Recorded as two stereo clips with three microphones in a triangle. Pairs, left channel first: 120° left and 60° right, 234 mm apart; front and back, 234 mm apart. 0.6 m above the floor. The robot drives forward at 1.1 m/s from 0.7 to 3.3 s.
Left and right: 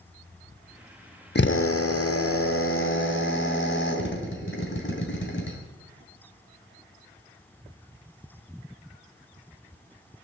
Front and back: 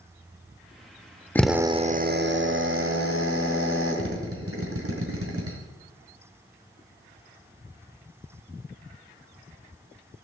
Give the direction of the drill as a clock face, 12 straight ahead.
9 o'clock.